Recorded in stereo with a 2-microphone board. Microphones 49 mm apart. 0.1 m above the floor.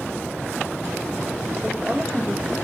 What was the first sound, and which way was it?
A woman speaking, 20° right (ahead or behind).